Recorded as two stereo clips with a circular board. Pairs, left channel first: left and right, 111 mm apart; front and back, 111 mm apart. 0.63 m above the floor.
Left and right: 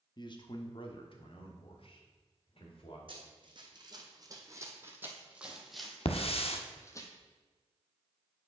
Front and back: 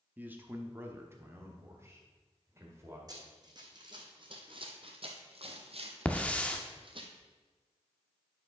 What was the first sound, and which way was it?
A man speaking, 110° left.